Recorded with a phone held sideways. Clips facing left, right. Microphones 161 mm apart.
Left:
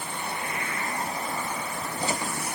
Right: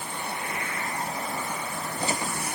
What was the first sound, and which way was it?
Only background noise.